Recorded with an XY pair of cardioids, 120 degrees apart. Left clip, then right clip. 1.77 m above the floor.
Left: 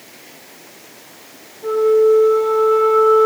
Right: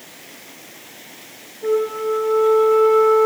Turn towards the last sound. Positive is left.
turn(degrees=-10)